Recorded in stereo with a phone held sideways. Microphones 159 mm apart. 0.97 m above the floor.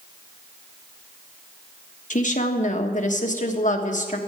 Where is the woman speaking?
50° left (ahead or behind), 1.4 m.